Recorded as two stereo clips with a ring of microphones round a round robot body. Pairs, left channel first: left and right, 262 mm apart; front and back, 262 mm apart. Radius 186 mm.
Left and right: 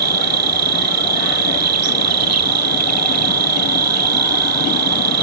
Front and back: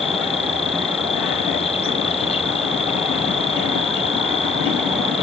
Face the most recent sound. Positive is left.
turn(degrees=-75)